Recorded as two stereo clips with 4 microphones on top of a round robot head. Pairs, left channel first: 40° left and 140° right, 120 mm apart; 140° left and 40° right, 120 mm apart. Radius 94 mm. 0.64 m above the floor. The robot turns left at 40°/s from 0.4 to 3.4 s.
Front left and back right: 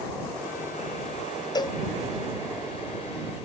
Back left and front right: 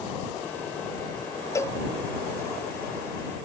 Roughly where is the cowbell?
Left.